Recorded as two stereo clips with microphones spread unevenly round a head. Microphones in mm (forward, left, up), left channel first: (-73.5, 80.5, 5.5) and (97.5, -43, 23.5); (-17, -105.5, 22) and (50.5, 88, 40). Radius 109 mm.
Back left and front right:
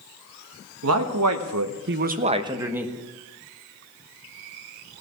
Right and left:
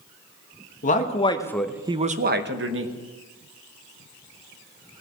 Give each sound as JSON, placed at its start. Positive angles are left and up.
{"t": 0.8, "sound": "a man speaking", "azimuth_deg": -60, "distance_m": 1.3}